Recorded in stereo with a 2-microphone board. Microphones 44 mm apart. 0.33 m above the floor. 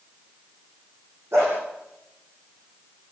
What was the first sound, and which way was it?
A dog barking, 85° right.